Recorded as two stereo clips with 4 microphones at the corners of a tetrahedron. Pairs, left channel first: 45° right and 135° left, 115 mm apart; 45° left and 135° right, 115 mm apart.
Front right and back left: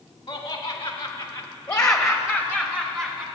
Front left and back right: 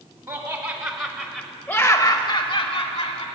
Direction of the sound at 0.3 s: 95° right.